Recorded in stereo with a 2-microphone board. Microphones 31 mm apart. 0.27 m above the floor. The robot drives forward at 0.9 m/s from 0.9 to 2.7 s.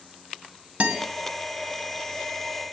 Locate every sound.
0.8 s a guitar: 50° right (ahead or behind), 1.8 m